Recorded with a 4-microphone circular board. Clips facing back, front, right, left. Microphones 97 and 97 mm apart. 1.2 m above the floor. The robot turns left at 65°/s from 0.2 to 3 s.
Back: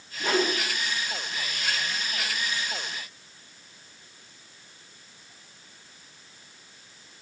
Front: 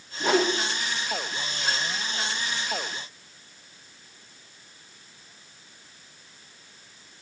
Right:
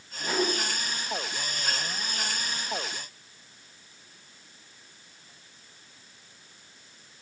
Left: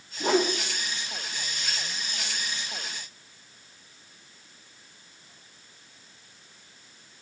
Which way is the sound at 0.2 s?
75° left.